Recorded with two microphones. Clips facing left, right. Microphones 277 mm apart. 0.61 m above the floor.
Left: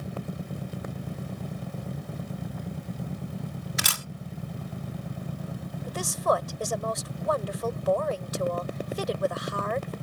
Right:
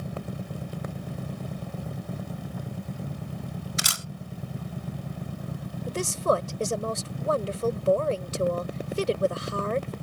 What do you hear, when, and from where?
3.8 s a camera shutter: 65° left (ahead or behind)
5.9 s a woman speaking: 30° right (ahead or behind)